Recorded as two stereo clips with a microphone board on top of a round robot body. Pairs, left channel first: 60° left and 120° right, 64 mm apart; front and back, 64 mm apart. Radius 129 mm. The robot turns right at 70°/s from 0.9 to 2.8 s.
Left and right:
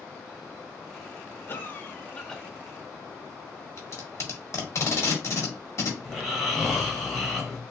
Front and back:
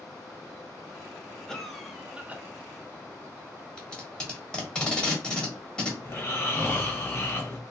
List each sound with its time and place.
1.5 s a cough: 75° left, 1.0 m; by 2.4 s 140° left, 1.0 m
3.8 s tape being pulled: 70° left, 1.5 m
6.0 s snoring: 20° right, 1.5 m